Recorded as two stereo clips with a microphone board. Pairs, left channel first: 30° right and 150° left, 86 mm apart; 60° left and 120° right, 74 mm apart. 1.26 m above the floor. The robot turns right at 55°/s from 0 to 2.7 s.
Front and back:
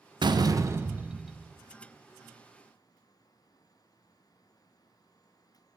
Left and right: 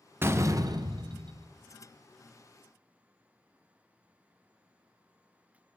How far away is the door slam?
About 0.7 m.